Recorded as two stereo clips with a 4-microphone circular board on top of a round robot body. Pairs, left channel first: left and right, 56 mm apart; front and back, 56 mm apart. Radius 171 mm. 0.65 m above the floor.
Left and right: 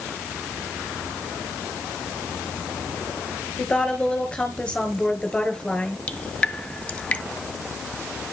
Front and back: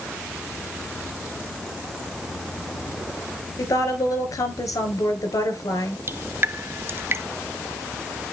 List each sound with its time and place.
3.6 s a woman speaking: 15° left, 4 m
6.1 s dripping: 155° left, 1.1 m